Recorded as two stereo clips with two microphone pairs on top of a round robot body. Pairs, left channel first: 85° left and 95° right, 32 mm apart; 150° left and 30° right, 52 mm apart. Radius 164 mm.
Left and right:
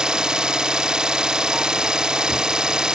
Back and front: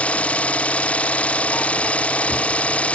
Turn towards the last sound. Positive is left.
turn(degrees=-150)